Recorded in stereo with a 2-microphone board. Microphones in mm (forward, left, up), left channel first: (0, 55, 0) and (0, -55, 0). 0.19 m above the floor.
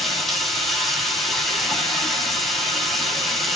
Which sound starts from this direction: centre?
Running water, at 0.0 s.